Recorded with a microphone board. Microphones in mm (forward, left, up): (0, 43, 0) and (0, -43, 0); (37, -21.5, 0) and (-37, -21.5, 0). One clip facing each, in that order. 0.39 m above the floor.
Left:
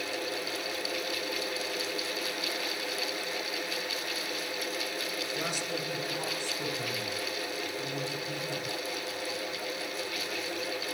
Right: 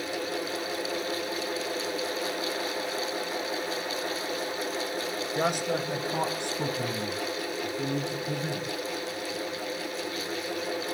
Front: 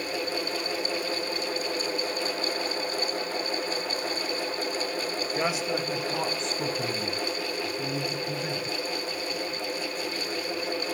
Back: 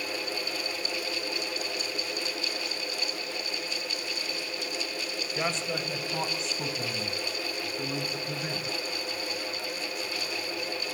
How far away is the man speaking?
About 2 m.